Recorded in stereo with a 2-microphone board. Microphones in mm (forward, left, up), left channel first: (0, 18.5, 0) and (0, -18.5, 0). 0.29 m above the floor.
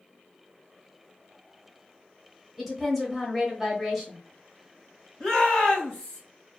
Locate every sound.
2.6 s a woman speaking: 5° right (ahead or behind), 1.0 m
5.2 s a shout: 25° left (ahead or behind), 1.5 m